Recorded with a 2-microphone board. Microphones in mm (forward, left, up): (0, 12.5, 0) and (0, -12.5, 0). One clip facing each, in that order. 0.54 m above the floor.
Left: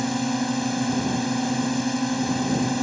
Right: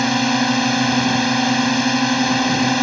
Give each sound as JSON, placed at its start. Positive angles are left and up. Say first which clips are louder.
{"t": 0.0, "sound": "a drone", "louder": "right 8 dB", "side_deg": -55}